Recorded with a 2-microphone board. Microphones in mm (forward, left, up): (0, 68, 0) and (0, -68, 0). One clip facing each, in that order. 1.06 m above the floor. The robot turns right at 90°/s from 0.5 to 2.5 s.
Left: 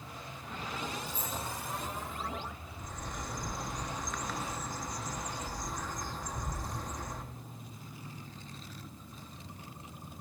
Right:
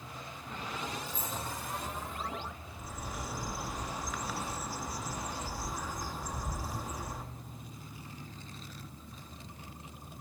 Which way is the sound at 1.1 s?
70° left (ahead or behind).